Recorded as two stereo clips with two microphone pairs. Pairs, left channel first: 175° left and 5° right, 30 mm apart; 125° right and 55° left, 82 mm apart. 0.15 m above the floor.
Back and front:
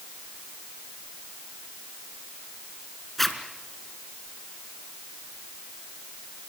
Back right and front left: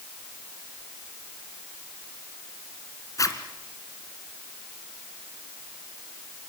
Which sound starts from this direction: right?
A zipper, at 3.2 s.